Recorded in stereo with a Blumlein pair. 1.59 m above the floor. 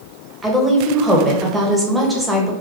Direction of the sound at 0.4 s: 5° right.